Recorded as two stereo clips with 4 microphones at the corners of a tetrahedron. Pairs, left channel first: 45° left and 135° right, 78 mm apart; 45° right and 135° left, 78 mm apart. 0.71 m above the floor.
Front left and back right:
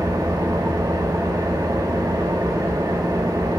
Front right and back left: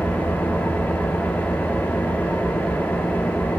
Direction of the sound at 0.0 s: 110° right.